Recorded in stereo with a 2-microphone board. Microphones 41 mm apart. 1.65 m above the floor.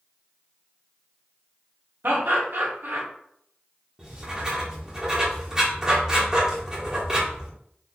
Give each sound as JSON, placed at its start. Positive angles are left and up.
{"t": 2.0, "sound": "laughter", "side_deg": -60, "distance_m": 1.1}
{"t": 4.0, "sound": "writing", "side_deg": -20, "distance_m": 1.3}